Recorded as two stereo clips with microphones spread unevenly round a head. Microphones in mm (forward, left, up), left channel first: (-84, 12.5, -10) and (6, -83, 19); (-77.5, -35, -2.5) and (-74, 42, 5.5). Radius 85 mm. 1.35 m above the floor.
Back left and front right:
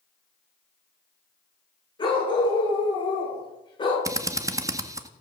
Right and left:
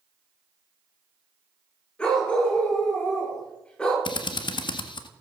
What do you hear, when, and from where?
2.0 s a dog barking: 175° right, 9 m
4.0 s a drill: 110° right, 1.6 m